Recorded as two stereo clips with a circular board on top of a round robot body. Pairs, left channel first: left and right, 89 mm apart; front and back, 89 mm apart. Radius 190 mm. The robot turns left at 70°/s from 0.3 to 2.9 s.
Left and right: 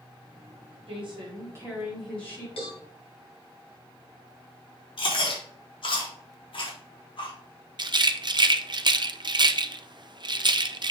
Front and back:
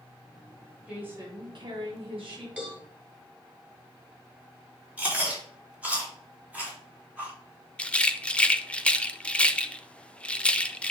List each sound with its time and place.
0.9 s a woman speaking: 100° right, 4 m; by 2.5 s 150° left, 4 m
2.6 s a cowbell: 100° left, 2 m; by 2.8 s 85° left, 2 m
5.0 s chewing: 105° left, 3 m
7.8 s a rattle: 75° right, 0.8 m